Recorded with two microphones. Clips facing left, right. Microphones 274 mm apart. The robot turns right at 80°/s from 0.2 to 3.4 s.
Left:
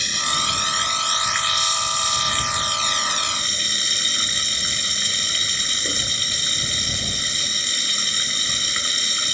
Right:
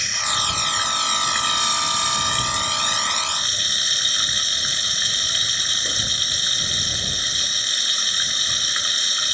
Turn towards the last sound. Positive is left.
turn(degrees=30)